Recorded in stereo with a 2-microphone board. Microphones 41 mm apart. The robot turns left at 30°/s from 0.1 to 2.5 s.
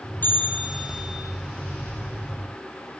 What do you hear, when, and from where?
0.2 s a bell: 45° left, 5 m; by 1.2 s 15° left, 5 m